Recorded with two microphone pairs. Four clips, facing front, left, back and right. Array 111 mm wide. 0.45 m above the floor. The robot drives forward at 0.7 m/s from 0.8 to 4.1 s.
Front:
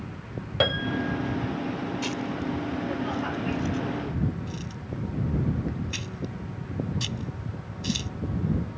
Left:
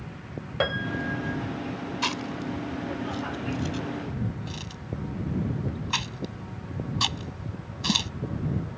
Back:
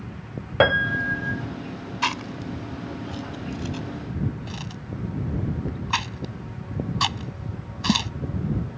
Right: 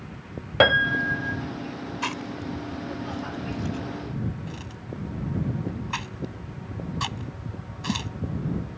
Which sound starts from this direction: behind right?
A piano, at 0.6 s.